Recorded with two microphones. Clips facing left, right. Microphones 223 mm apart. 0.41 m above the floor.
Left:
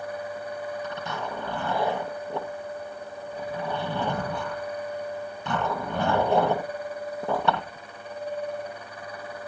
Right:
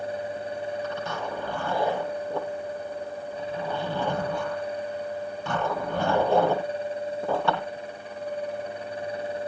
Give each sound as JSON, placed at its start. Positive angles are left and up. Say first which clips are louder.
{"t": 0.8, "sound": "a zipper", "louder": "right 2 dB", "side_deg": 20, "distance_m": 8.0}